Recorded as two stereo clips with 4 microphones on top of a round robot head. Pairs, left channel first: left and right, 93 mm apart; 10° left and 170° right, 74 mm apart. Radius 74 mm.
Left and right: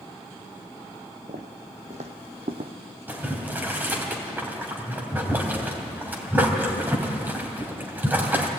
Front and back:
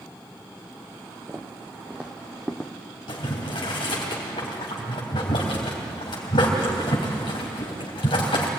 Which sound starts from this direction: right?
Footsteps, at 1.3 s.